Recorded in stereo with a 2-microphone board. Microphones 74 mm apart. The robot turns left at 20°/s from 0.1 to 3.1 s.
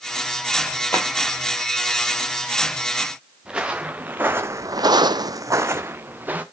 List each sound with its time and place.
0.9 s a drawer: 30° left (ahead or behind), 1.5 m; by 1.1 s 25° left (ahead or behind), 1.5 m
3.5 s footsteps: 10° right (ahead or behind), 1.6 m; by 6.4 s 25° right (ahead or behind), 1.5 m